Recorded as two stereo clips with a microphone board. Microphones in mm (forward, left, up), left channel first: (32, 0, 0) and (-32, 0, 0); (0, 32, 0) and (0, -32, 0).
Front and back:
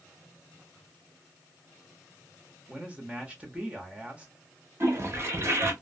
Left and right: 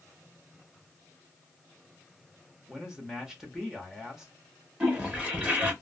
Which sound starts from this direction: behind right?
A toilet flushing, at 4.8 s.